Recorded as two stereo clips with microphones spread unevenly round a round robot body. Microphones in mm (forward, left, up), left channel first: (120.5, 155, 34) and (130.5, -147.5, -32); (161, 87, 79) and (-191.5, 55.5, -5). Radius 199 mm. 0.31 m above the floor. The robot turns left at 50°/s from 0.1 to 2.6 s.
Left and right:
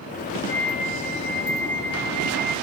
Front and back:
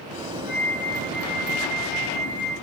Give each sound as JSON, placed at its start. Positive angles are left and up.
{"t": 0.5, "sound": "a flute", "azimuth_deg": 100, "distance_m": 7.0}